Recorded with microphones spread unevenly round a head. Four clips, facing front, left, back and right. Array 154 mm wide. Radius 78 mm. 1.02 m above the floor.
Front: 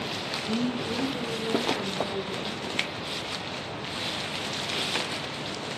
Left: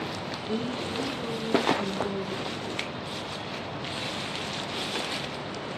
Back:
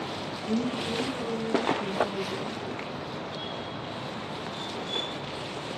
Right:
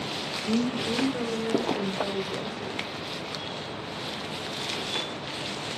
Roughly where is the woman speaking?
Right.